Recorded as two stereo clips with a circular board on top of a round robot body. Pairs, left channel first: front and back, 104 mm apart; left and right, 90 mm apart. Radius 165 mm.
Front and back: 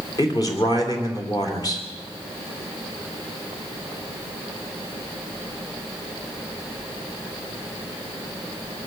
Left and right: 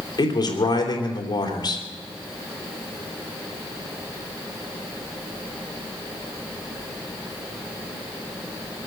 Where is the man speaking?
50° left, 3 m.